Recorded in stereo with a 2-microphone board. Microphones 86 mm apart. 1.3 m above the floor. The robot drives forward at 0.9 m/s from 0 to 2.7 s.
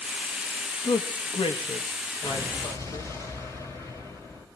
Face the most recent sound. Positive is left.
turn(degrees=35)  # may be behind; listen again after turning